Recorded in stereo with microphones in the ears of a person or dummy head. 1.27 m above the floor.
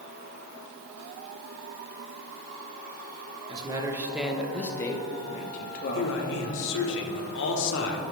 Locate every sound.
3.5 s a man speaking: 25° right (ahead or behind), 1.0 m; by 6.9 s 70° left (ahead or behind), 1.4 m
5.9 s a man speaking: 70° left (ahead or behind), 1.3 m